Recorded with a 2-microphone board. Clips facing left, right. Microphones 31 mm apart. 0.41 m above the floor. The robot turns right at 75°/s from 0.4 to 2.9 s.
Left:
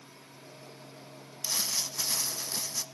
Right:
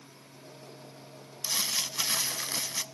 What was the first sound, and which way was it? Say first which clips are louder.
Crumpling: right 2 dB; 160° right.